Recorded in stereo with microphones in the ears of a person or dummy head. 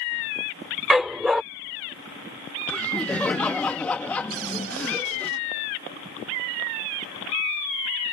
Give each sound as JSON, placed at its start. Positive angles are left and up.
{"t": 0.9, "sound": "a dog barking", "side_deg": 0}
{"t": 2.7, "sound": "laughter", "side_deg": 5}
{"t": 4.3, "sound": "a cupboard door", "side_deg": -85}